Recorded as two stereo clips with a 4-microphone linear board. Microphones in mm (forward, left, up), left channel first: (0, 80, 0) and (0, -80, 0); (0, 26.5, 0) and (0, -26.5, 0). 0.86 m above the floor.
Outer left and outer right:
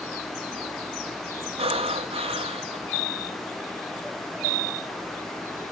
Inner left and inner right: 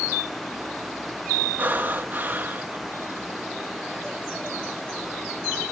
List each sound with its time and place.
1.6 s breathing: 35° right (ahead or behind), 0.7 m